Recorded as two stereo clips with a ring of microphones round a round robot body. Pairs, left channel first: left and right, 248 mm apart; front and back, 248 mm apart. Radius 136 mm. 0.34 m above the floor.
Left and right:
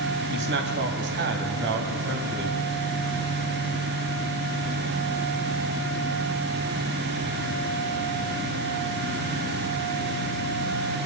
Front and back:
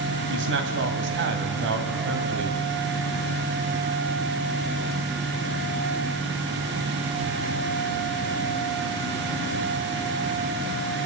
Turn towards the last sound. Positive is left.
turn(degrees=-135)